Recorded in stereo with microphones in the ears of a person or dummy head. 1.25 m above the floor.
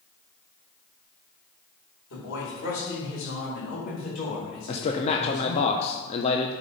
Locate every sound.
2.1 s a man speaking: 70° left (ahead or behind), 4 m; by 5.7 s 50° left (ahead or behind), 5.5 m
4.7 s a man speaking: 35° left (ahead or behind), 0.8 m